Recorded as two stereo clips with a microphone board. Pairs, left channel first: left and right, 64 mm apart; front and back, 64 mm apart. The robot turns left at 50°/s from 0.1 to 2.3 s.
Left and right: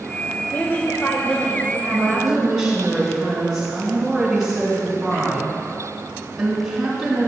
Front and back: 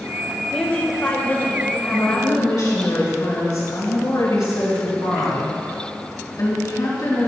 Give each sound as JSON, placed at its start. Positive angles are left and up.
{"t": 0.5, "sound": "a woman speaking", "azimuth_deg": 70, "distance_m": 1.6}
{"t": 1.9, "sound": "a woman speaking", "azimuth_deg": 15, "distance_m": 3.5}